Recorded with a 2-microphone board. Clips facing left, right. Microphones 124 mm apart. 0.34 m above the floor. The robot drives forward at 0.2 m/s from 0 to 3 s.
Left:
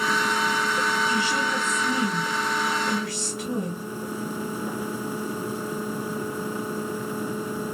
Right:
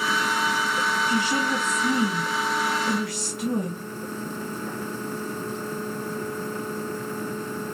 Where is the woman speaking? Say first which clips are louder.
Right 1 dB; 45° right (ahead or behind), 3 m; by 3.8 s 50° right (ahead or behind), 3 m.